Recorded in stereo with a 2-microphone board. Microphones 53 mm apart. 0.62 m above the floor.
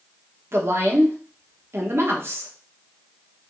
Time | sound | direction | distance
0.5 | a woman speaking | 50° right (ahead or behind) | 1.1 m